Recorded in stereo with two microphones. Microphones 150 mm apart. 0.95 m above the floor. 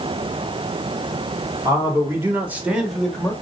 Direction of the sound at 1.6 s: 25° right (ahead or behind).